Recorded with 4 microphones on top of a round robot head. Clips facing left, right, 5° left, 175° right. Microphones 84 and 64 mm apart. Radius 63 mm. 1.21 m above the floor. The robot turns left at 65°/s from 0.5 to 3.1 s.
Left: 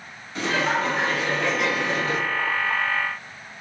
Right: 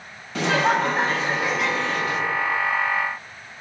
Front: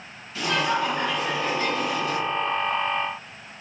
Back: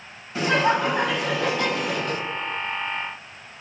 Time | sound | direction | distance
0.3 | laughter | 110° right | 1.2 m